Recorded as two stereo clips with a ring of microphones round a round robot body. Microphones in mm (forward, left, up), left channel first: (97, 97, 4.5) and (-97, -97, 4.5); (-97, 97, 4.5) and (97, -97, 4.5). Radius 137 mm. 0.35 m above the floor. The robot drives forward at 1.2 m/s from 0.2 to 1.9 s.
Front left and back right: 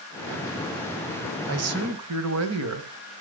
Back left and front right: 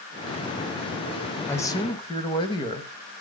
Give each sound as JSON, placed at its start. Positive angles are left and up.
{"t": 1.5, "sound": "a man speaking", "azimuth_deg": -145, "distance_m": 1.4}